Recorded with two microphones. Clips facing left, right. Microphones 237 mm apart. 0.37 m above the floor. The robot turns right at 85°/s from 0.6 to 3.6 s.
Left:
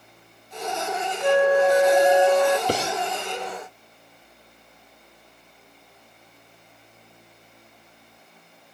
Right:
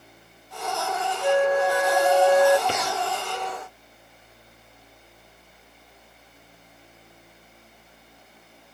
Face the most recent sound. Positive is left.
turn(degrees=-145)